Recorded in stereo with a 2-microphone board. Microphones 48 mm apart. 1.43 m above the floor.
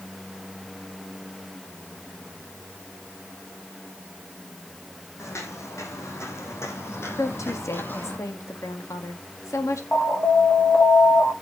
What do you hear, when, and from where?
5.2 s footsteps: 65° left (ahead or behind), 3.5 m; by 8.2 s 35° left (ahead or behind), 2.5 m
7.2 s a woman speaking: 80° left, 2 m
9.9 s an alarm: 35° left (ahead or behind), 2.5 m